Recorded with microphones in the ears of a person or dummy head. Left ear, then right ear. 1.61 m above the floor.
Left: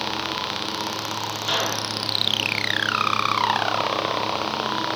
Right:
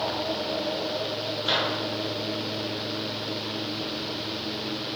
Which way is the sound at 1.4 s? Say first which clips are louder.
Left 1 dB; centre (ahead or behind).